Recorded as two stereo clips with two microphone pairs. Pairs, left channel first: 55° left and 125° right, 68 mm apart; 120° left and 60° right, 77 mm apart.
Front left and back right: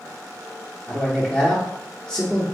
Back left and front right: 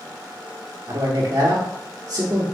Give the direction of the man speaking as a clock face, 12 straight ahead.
1 o'clock.